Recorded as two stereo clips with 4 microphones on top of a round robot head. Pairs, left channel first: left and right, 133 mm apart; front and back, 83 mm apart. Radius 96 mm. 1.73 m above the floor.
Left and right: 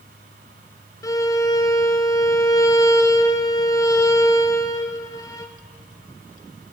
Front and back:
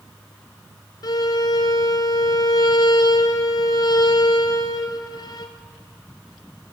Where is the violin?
30° left, 1.5 m.